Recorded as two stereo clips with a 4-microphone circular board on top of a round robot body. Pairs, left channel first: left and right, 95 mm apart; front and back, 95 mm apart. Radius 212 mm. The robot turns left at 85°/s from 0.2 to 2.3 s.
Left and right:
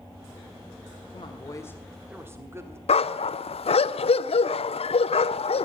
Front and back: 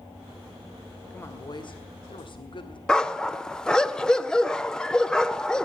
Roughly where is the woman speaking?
Left.